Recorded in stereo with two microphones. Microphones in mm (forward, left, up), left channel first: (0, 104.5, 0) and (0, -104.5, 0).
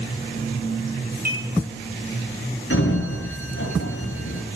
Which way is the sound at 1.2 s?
45° right (ahead or behind).